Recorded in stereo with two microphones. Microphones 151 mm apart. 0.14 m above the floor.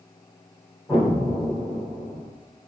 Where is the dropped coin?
I don't hear a dropped coin.